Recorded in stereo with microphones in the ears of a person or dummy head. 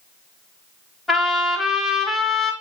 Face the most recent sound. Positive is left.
turn(degrees=0)  # may be behind; listen again after turning